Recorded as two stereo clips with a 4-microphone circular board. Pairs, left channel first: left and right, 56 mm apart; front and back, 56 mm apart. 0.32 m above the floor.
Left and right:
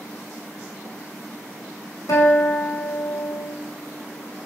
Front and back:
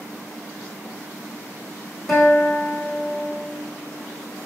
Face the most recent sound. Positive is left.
turn(degrees=90)